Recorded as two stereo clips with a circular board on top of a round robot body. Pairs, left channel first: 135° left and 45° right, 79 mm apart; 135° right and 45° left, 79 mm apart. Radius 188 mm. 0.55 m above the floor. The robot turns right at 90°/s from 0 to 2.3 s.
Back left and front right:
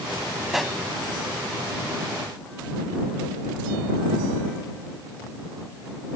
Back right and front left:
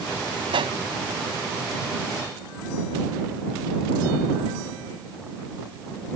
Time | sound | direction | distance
0.5 | a pop | 35° left | ?